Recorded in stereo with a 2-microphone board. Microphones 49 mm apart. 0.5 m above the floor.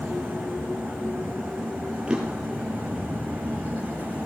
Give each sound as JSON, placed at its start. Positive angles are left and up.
{"t": 2.1, "sound": "a drawer", "side_deg": -20, "distance_m": 5.0}